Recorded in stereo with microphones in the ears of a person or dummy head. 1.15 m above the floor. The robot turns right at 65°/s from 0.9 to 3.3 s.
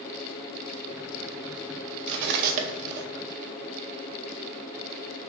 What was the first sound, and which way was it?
Cutlery clinking, 65° right (ahead or behind).